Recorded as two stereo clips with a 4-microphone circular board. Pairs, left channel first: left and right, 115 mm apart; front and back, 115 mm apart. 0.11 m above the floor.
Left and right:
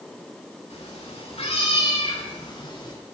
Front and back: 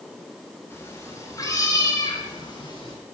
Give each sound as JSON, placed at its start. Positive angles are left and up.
{"t": 0.7, "sound": "a cat meowing", "azimuth_deg": 70, "distance_m": 6.0}